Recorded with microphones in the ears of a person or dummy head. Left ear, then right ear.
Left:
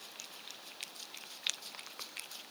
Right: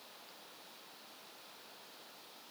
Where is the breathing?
I don't hear breathing.